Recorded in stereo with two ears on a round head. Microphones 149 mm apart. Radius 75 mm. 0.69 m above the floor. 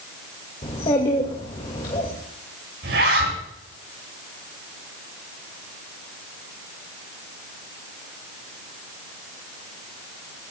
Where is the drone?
I don't hear a drone.